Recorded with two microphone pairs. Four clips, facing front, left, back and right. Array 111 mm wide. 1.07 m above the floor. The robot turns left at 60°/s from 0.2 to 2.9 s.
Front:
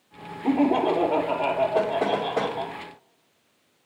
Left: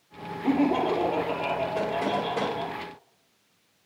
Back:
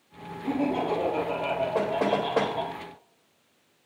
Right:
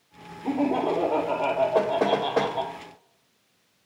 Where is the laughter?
25° left, 2.5 m; by 2.8 s 115° right, 2.5 m.